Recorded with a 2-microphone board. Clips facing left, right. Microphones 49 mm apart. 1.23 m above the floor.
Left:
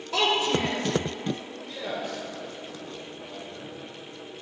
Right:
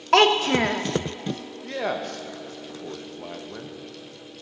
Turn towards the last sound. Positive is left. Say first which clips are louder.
# right 6 dB
turn(degrees=-65)  # may be behind; listen again after turning